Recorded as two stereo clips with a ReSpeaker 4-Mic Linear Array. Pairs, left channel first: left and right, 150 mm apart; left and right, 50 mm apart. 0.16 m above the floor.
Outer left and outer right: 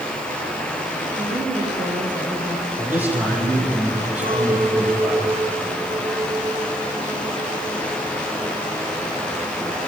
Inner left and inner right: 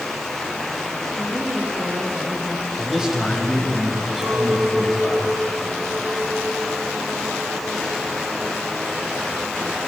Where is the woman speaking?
35° right (ahead or behind), 8 m; by 2.7 s 30° right (ahead or behind), 7 m.